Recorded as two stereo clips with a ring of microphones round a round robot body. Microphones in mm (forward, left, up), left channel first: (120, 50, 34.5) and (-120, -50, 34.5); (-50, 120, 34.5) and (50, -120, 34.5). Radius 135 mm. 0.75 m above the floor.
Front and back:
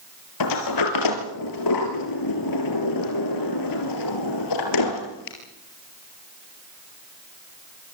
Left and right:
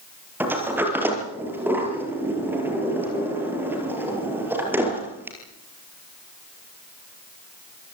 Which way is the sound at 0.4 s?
15° left.